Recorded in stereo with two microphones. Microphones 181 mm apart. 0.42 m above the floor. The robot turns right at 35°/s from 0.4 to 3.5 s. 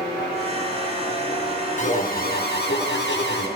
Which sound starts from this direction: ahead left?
An alarm, at 1.8 s.